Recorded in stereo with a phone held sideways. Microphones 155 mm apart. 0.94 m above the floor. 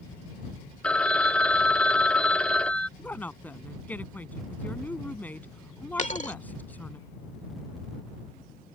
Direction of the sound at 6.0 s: 50° left (ahead or behind).